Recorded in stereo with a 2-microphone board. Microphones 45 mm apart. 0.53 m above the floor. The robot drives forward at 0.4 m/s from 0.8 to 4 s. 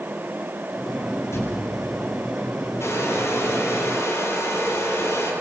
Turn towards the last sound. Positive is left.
turn(degrees=85)